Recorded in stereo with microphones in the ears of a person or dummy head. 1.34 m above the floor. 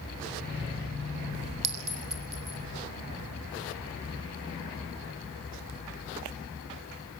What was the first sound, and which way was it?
A clink, 5° right (ahead or behind).